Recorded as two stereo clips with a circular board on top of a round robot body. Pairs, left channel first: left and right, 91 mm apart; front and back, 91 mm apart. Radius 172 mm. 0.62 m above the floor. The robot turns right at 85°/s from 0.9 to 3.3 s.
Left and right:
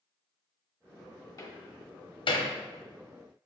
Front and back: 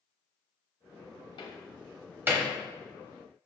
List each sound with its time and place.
1.4 s a door slam: 35° left, 1.1 m; by 2.5 s 135° left, 1.1 m